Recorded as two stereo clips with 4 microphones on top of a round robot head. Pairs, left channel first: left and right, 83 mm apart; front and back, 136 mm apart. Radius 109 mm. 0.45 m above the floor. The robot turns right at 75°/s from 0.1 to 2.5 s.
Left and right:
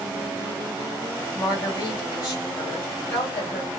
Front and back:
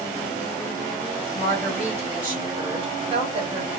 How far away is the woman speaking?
About 2.5 m.